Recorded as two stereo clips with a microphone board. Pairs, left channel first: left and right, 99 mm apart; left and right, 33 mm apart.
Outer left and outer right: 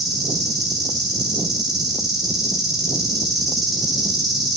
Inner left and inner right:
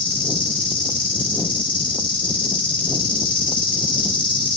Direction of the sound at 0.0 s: 40° left (ahead or behind).